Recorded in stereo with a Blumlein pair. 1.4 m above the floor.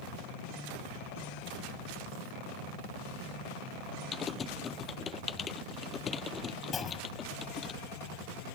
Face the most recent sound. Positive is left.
turn(degrees=20)